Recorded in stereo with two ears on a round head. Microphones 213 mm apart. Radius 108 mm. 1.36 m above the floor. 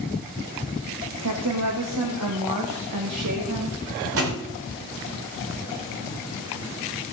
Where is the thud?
65° right (ahead or behind), 3 m.